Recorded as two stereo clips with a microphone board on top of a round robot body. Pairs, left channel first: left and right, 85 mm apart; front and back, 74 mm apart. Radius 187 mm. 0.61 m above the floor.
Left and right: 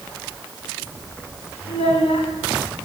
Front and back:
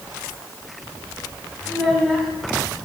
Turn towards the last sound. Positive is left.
turn(degrees=85)